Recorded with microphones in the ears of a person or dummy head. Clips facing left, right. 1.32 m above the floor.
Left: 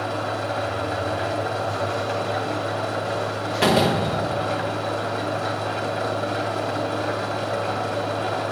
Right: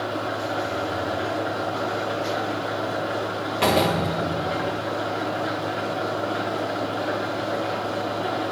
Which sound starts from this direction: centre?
A door slam, at 3.6 s.